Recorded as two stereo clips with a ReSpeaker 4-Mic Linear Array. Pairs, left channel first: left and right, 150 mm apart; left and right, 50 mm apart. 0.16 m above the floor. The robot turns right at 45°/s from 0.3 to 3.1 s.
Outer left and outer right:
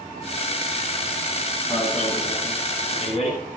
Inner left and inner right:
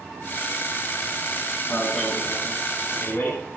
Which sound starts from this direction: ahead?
An alarm, at 1.7 s.